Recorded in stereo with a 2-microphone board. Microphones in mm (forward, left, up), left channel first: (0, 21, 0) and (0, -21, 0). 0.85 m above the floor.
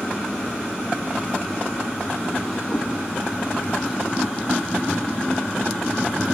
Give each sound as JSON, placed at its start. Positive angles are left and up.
{"t": 2.7, "sound": "a cat meowing", "side_deg": 70, "distance_m": 5.5}